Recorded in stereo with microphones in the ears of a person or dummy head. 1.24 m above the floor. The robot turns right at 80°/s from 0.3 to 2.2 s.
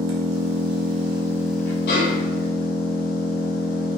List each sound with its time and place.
0.0 s an engine running: 100° right, 0.8 m; by 4.0 s 50° left, 0.8 m
1.9 s a snare drum: 55° left (ahead or behind), 1.8 m; by 2.5 s 75° left (ahead or behind), 1.8 m